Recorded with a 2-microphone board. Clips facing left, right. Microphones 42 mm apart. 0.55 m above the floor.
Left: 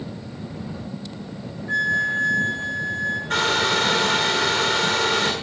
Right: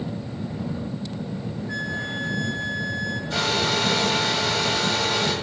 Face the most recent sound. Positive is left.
turn(degrees=60)  # may be behind; listen again after turning